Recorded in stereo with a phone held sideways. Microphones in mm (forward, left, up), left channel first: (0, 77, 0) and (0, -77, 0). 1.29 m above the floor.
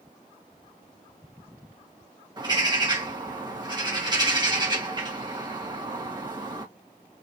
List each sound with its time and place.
2.4 s a bird: 30° right (ahead or behind), 1.9 m